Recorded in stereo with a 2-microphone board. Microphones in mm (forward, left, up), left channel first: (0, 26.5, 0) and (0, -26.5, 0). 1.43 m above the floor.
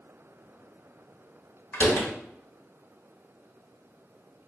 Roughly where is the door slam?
Left.